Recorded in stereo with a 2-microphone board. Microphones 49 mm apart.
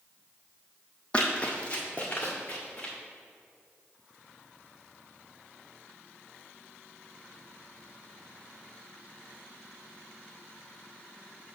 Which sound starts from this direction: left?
Running footsteps, at 1.1 s.